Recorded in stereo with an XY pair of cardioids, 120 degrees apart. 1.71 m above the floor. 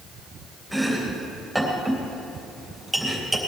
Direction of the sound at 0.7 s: 5° right.